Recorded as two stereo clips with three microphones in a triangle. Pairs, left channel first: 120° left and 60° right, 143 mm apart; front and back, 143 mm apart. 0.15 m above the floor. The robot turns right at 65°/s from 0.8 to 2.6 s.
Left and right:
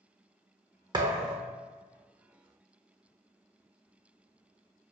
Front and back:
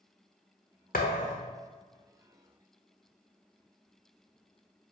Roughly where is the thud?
Ahead.